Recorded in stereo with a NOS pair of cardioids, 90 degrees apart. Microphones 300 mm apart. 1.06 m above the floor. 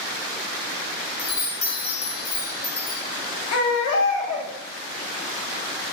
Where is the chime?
35° left, 0.9 m.